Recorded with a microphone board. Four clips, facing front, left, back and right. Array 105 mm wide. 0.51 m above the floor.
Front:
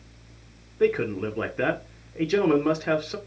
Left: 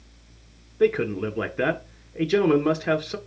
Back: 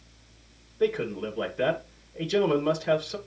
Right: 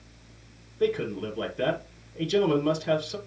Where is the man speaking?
55° left, 1.6 m.